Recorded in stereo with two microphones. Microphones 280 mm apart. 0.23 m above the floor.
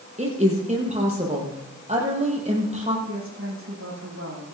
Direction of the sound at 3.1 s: 45° right (ahead or behind).